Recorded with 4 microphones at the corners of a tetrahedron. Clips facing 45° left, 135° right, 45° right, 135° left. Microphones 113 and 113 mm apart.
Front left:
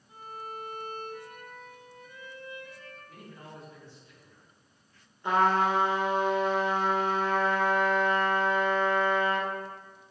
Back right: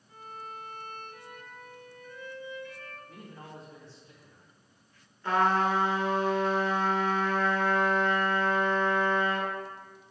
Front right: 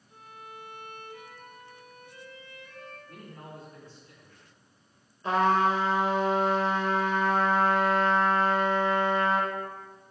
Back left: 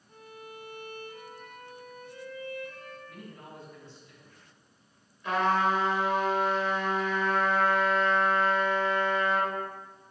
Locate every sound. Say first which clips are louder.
0.1 s a violin: front left 2 dB, back left 1 dB; 115° left, 1.9 m
3.1 s a man speaking: back right 1 dB, front right 1 dB; 85° right, 3.5 m
5.2 s a trumpet: front left 1 dB, front right 2 dB; 15° right, 1.4 m